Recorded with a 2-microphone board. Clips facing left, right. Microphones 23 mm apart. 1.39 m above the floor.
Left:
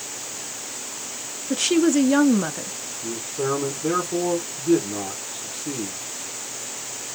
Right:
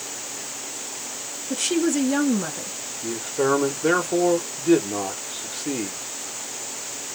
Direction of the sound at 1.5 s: 15° left (ahead or behind).